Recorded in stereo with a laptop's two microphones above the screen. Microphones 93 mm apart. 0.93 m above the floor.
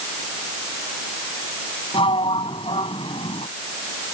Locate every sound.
1.9 s a sliding door: 70° left (ahead or behind)